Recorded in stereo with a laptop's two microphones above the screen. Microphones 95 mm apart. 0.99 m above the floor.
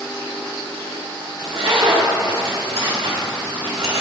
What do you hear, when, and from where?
1.4 s a zipper: 80° right, 1.8 m